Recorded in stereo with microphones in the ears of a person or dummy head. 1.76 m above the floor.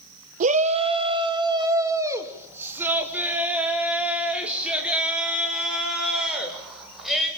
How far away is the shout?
About 1.4 m.